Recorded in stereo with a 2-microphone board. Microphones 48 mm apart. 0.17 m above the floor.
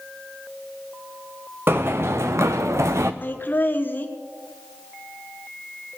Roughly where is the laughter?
Left.